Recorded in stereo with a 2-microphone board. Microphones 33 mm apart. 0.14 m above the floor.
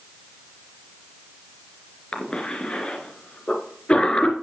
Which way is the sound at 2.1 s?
35° left (ahead or behind).